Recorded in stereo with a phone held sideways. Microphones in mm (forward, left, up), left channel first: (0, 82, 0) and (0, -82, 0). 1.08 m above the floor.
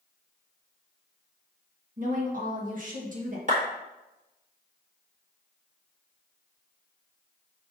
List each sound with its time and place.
2.0 s a woman speaking: 55° right (ahead or behind), 1.2 m
3.5 s a clap: 50° right (ahead or behind), 1.7 m